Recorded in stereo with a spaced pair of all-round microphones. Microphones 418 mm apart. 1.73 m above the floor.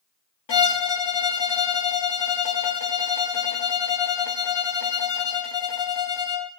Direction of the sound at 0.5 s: 85° left.